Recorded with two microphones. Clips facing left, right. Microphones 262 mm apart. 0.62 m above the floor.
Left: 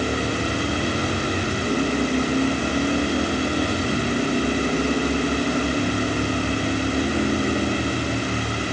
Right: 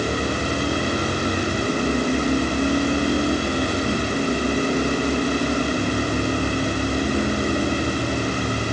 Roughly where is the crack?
No crack in this recording.